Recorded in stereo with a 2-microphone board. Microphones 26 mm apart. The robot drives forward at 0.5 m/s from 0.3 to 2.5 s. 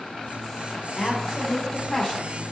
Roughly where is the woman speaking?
Left.